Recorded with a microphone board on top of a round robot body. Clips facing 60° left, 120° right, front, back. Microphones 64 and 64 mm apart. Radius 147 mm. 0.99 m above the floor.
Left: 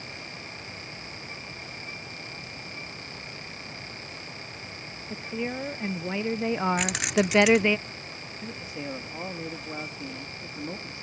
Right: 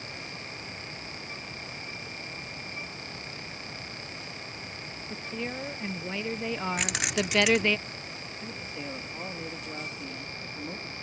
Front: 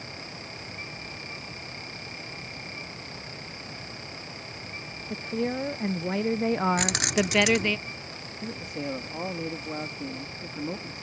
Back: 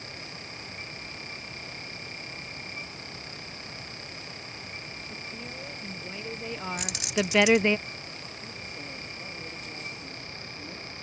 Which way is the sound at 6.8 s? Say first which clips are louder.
Left 5 dB, front 4 dB; 30° right.